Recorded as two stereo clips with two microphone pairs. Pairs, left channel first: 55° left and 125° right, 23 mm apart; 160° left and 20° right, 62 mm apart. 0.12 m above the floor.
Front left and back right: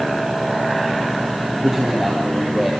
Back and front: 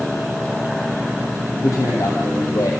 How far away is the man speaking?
About 4 m.